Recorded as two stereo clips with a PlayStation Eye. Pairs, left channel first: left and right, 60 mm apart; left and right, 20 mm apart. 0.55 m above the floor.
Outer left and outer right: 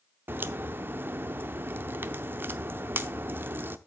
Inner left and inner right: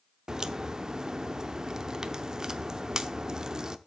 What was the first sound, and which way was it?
A crack, 40° right (ahead or behind).